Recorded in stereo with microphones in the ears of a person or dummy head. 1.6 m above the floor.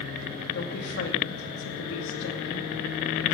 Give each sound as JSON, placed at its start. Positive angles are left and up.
{"t": 0.5, "sound": "a woman speaking", "side_deg": 55, "distance_m": 2.5}